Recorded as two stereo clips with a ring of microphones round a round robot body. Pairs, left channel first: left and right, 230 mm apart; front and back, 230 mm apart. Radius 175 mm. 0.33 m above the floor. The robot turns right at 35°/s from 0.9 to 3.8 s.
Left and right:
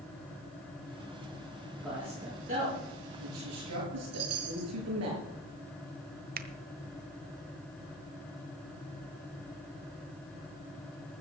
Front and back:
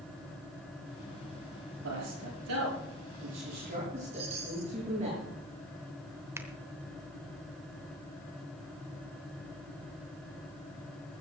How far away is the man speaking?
About 7 m.